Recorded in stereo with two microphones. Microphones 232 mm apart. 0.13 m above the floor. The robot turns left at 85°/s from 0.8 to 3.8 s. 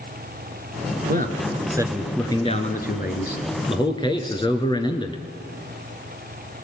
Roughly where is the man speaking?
Right.